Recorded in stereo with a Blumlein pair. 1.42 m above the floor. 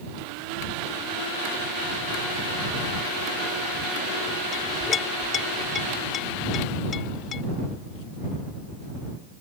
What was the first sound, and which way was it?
A clink, 25° left.